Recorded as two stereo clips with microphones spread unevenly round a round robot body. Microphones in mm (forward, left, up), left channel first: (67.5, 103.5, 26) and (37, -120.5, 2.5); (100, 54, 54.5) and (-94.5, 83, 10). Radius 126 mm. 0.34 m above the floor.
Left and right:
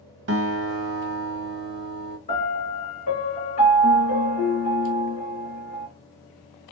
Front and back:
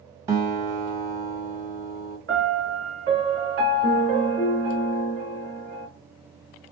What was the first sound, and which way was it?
A guitar, 120° right.